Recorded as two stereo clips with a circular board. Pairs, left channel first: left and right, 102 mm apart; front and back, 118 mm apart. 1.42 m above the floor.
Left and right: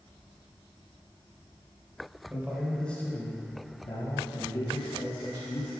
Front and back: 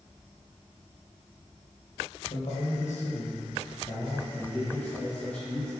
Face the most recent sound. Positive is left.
turn(degrees=80)